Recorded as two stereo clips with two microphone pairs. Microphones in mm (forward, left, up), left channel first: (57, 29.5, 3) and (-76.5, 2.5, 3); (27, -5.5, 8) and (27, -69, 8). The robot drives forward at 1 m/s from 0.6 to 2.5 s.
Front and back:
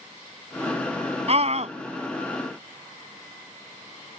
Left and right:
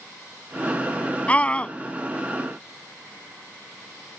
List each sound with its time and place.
1.3 s a scream: 155° left; by 1.8 s 160° left